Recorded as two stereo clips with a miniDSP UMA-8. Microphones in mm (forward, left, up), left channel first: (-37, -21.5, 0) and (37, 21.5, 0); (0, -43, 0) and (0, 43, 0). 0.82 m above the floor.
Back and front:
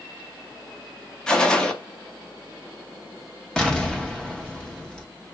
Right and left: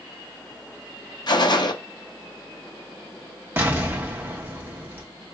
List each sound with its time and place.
1.3 s a gunshot: 70° right, 0.5 m
3.6 s an explosion: 135° left, 0.7 m